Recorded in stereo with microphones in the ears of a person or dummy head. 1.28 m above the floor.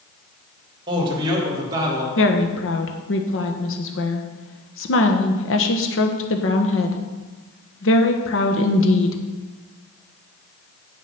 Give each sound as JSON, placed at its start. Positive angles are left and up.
{"t": 0.9, "sound": "a man speaking", "side_deg": -25, "distance_m": 3.0}
{"t": 2.2, "sound": "a woman speaking", "side_deg": 65, "distance_m": 1.2}